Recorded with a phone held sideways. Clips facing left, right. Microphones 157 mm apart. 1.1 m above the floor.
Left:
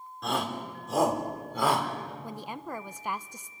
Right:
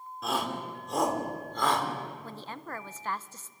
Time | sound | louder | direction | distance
0.2 | a shout | left 1 dB | 5° right (ahead or behind) | 3.5 m
2.2 | a woman speaking | left 3 dB | 15° left (ahead or behind) | 0.6 m